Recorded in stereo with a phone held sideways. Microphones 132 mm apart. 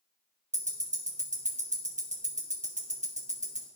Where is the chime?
No chime in this recording.